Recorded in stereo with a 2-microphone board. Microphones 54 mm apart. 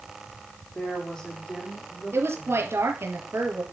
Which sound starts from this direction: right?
A woman speaking, at 2.1 s.